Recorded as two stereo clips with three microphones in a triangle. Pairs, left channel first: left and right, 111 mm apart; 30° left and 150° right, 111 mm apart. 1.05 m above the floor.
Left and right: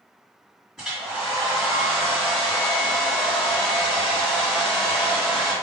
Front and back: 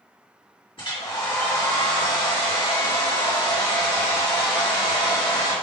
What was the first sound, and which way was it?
A hair dryer, 10° right.